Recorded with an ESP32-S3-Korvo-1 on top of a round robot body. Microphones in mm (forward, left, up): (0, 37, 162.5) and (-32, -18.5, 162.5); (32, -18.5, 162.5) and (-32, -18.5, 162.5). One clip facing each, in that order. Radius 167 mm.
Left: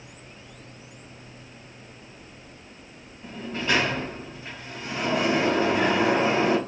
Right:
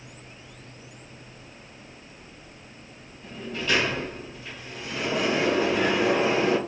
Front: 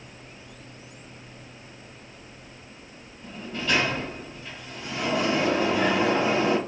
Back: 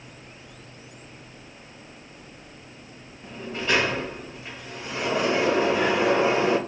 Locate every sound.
3.2 s a sliding door: 120° left, 1.1 m